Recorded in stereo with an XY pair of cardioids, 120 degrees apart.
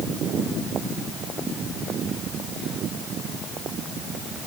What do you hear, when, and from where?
Only background noise.